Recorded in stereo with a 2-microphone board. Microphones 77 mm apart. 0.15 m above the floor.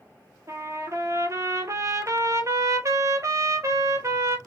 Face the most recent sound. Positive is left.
turn(degrees=-40)  # may be behind; listen again after turning